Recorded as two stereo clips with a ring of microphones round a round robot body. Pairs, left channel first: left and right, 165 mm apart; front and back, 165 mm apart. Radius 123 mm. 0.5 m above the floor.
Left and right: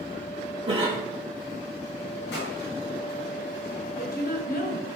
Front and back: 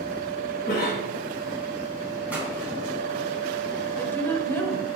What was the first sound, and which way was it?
A cough, 30° right.